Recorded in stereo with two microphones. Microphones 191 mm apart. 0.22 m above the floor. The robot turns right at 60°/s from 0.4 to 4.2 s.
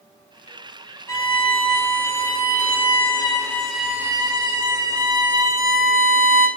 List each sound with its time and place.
1.1 s a violin: 20° left, 0.7 m; by 6.5 s 155° right, 0.7 m